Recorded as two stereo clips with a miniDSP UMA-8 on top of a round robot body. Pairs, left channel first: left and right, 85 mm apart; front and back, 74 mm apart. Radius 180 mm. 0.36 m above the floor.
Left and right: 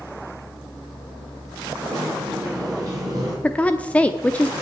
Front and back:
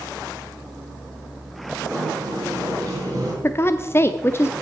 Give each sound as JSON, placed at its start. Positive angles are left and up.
{"t": 1.9, "sound": "a sliding door", "azimuth_deg": -135, "distance_m": 6.5}
{"t": 3.4, "sound": "a woman speaking", "azimuth_deg": 25, "distance_m": 0.9}